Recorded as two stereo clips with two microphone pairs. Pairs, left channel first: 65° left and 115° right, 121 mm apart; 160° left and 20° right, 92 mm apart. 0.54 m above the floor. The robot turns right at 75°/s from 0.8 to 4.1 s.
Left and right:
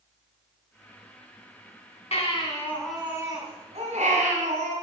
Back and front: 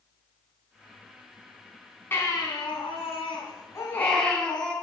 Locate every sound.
2.1 s a baby crying: 95° left, 3 m; by 4.7 s 115° right, 3 m